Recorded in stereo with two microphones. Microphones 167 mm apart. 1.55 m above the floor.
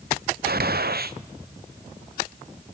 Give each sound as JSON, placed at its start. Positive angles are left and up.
{"t": 0.5, "sound": "a gunshot", "side_deg": -70, "distance_m": 0.8}